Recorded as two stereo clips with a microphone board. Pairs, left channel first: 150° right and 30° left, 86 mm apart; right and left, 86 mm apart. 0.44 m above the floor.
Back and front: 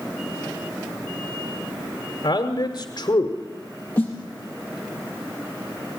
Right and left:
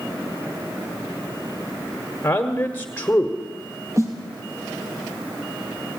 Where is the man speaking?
150° right, 1.4 m.